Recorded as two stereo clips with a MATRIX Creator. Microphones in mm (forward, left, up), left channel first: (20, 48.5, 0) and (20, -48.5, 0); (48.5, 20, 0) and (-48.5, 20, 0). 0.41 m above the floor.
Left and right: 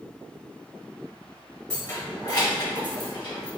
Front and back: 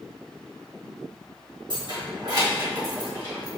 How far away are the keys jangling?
About 1.0 m.